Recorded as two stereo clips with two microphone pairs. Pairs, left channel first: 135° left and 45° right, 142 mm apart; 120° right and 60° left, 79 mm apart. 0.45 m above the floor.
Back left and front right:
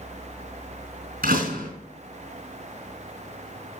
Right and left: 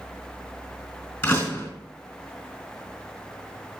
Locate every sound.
1.2 s a door slam: 60° right, 4 m